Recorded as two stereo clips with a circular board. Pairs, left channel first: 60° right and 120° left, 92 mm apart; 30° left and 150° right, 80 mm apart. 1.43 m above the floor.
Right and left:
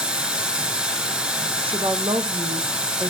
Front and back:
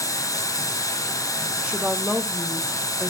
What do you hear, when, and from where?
0.0 s running water: 45° left, 1.8 m
1.6 s a woman speaking: 135° left, 0.7 m